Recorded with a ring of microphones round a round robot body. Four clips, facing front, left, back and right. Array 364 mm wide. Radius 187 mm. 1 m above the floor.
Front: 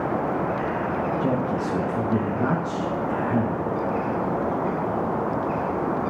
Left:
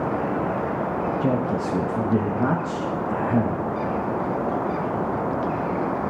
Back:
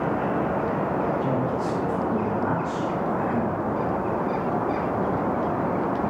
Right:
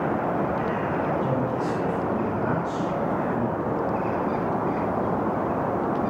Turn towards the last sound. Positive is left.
turn(degrees=65)